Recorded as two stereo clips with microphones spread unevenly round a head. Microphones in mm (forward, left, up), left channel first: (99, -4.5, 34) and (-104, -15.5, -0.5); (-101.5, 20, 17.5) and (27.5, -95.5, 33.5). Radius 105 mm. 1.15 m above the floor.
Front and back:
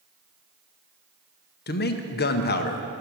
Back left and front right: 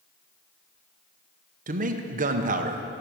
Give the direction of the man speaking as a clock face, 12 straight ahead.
1 o'clock.